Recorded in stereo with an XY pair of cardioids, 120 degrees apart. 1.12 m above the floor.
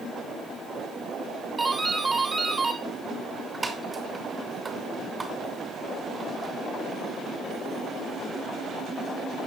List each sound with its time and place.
1.6 s a doorbell: 20° right, 2.5 m